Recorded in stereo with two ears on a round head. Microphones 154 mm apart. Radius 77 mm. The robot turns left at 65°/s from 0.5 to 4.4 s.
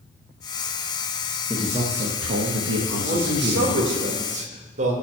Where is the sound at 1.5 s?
5° right, 1.0 m; by 3.9 s 160° right, 1.0 m.